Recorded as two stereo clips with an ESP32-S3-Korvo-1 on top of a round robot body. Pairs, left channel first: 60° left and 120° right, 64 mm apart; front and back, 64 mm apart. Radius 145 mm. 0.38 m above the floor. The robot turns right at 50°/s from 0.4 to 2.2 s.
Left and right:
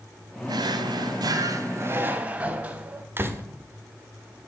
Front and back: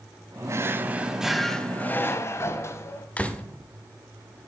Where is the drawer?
135° right, 1.0 m; by 3.1 s 50° right, 1.0 m.